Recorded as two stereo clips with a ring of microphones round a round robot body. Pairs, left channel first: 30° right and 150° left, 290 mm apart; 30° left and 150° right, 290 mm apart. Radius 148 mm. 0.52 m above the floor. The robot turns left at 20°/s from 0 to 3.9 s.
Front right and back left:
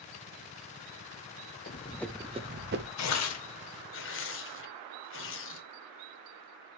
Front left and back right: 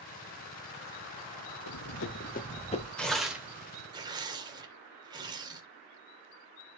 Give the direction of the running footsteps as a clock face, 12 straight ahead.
11 o'clock.